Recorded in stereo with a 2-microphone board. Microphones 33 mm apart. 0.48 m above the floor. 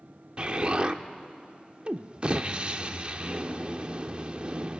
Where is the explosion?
30° right (ahead or behind), 0.6 m.